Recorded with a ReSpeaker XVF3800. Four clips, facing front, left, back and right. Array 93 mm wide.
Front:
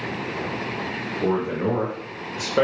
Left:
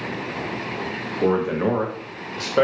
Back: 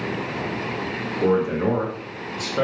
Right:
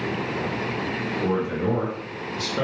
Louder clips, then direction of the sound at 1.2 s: Left 5 dB, back 3 dB; 110° left.